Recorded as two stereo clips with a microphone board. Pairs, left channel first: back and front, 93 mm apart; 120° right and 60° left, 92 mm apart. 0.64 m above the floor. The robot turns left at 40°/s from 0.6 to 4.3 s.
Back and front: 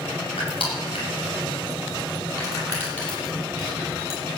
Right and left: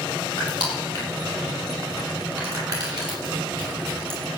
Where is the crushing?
160° right, 6.5 m; by 4.2 s 55° left, 6.5 m.